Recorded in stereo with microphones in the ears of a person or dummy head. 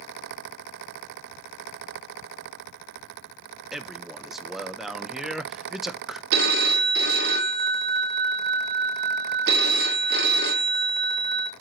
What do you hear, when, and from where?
3.7 s a man speaking: centre (ahead or behind), 0.6 m
6.3 s a phone ringing: 50° right (ahead or behind), 0.8 m